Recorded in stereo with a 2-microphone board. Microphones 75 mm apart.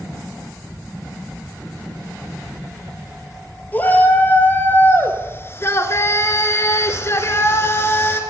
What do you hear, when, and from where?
3.7 s a shout: 25° left (ahead or behind), 2.5 m; by 8.2 s 30° left (ahead or behind), 1.7 m